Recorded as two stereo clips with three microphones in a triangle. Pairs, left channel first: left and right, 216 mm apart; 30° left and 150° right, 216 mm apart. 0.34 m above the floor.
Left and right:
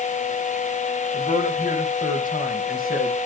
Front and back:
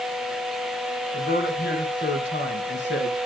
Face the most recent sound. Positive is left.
turn(degrees=45)